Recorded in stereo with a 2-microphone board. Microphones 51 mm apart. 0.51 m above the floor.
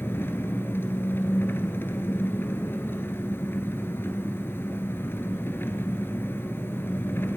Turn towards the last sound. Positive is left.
turn(degrees=45)  # may be behind; listen again after turning